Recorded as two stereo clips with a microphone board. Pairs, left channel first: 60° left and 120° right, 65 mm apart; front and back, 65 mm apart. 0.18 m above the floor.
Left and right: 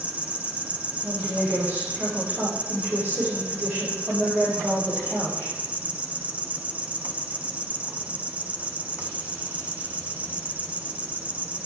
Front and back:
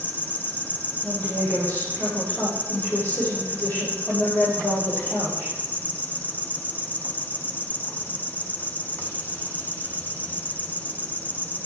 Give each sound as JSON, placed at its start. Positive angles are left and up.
{"t": 0.0, "sound": "an insect", "azimuth_deg": -55, "distance_m": 1.0}
{"t": 1.0, "sound": "a woman speaking", "azimuth_deg": -60, "distance_m": 7.0}